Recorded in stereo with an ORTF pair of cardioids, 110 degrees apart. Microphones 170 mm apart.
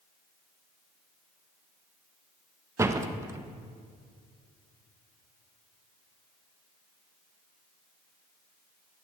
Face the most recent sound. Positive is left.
turn(degrees=-15)